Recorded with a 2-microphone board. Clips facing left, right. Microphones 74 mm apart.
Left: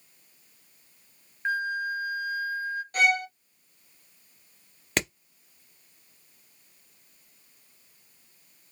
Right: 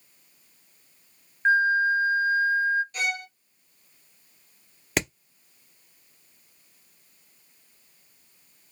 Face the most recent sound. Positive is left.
turn(degrees=-5)  # may be behind; listen again after turning